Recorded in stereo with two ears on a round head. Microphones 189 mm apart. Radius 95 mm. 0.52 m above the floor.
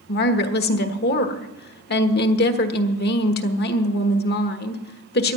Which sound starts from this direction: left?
A woman speaking, at 0.1 s.